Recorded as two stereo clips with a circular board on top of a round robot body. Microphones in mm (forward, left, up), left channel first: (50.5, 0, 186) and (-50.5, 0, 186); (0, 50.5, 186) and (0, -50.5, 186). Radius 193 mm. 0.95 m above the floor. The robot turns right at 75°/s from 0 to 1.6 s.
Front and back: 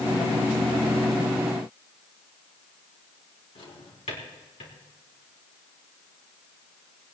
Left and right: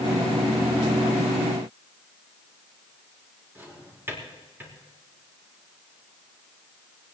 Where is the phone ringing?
I don't hear a phone ringing.